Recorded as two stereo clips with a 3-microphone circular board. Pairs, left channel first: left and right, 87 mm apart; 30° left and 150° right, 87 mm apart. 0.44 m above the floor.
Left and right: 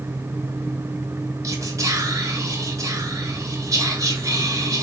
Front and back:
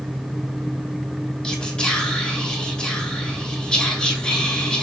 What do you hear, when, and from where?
1.4 s whispering: 50° right, 2 m